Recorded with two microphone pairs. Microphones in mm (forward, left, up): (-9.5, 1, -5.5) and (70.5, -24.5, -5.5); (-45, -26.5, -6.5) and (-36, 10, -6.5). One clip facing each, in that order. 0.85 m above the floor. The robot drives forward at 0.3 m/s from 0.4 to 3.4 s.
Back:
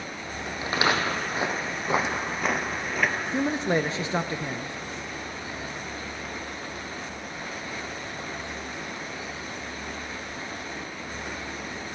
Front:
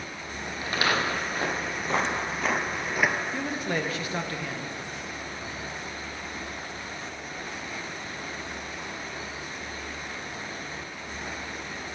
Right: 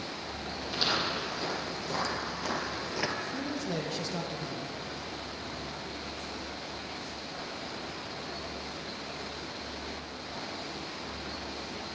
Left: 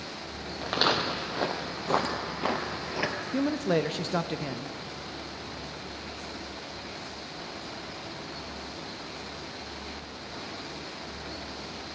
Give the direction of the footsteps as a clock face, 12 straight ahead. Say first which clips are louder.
Back 2 dB, left 5 dB; 9 o'clock.